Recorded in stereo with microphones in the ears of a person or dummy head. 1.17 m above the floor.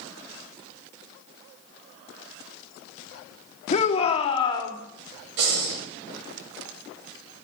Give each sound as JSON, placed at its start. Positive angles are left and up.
{"t": 3.7, "sound": "a shout", "side_deg": 30, "distance_m": 2.0}
{"t": 5.4, "sound": "breathing", "side_deg": -60, "distance_m": 4.0}